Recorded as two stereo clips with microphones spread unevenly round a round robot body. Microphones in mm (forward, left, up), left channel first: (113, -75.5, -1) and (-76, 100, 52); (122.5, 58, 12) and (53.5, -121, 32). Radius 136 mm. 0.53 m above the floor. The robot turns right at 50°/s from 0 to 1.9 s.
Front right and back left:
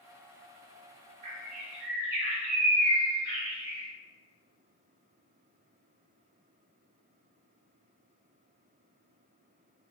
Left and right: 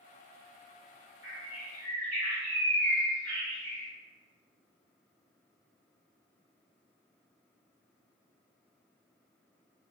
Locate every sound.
1.2 s a bird: 165° left, 1.8 m; by 3.9 s 160° right, 1.8 m